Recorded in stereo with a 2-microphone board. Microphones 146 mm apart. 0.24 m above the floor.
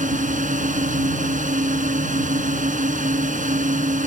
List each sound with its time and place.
0.0 s a drone: 60° right (ahead or behind)